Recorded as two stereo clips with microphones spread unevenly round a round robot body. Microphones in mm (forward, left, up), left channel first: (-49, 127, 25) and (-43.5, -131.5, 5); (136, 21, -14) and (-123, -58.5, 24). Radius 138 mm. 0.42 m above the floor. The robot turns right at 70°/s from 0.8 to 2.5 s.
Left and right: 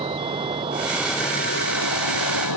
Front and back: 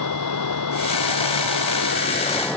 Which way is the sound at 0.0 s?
15° right.